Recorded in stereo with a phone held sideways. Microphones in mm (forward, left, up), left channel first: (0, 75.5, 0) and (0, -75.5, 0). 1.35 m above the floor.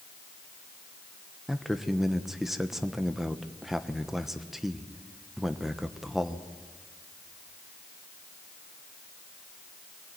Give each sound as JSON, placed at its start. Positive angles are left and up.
{"t": 1.5, "sound": "a man speaking", "side_deg": -5, "distance_m": 1.1}